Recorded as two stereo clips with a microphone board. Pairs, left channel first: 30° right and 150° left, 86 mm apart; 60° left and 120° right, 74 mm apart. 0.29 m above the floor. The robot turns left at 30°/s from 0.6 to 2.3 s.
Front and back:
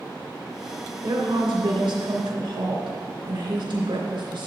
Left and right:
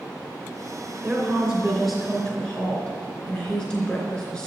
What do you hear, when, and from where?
1.0 s a woman speaking: 170° left, 3 m; by 4.5 s 130° left, 3 m